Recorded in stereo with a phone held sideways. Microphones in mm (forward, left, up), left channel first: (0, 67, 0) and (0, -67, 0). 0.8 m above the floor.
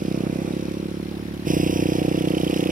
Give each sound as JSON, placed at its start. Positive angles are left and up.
{"t": 0.0, "sound": "a motorcycle", "side_deg": -85}